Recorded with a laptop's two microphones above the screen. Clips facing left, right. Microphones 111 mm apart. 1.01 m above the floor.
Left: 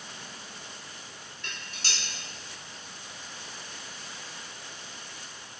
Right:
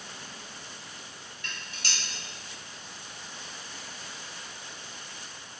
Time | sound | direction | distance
1.4 | dishes clattering | 85° left | 2.0 m